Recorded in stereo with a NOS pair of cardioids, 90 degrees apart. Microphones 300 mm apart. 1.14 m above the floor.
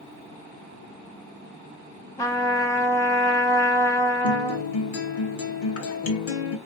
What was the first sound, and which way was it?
A trumpet, 10° left.